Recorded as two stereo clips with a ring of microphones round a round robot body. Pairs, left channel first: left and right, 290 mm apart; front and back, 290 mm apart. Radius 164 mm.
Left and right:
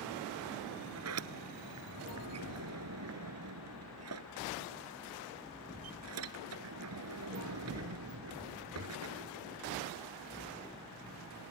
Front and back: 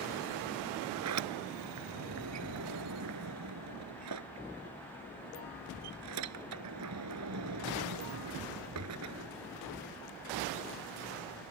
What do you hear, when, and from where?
0.9 s a sliding door: 135° right